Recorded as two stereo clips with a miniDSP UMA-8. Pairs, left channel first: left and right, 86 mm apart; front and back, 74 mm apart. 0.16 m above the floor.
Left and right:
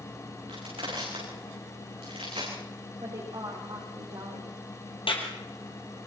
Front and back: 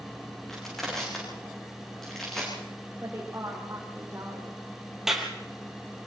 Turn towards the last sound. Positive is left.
turn(degrees=95)